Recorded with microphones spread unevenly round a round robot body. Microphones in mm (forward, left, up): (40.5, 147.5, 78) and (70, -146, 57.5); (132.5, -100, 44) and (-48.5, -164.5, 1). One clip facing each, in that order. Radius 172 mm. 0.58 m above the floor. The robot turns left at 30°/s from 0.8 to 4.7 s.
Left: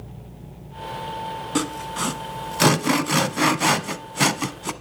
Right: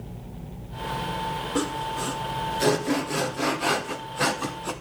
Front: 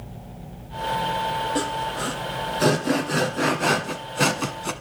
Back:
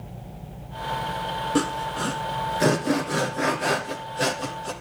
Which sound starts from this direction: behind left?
Sawing, at 1.6 s.